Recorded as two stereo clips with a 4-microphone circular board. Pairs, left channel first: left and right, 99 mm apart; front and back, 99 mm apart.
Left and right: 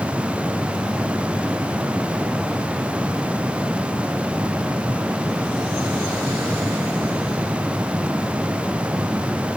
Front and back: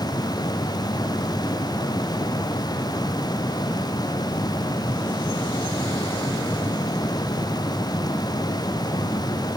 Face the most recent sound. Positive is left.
No sound to turn to.